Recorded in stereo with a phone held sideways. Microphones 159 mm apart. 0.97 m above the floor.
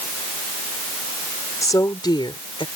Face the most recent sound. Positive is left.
turn(degrees=35)  # may be behind; listen again after turning